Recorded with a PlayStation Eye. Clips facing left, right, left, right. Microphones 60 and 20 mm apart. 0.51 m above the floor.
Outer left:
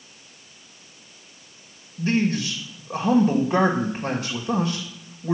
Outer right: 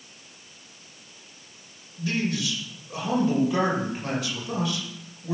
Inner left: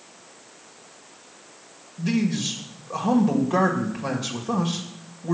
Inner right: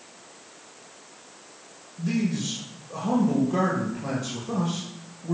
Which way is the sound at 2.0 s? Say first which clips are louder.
Outer left 5 dB, inner left 3 dB; 40° left (ahead or behind).